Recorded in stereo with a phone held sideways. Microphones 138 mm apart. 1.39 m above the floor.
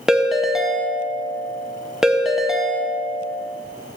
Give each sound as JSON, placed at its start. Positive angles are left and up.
{"t": 0.1, "sound": "a ringtone", "side_deg": -5, "distance_m": 0.6}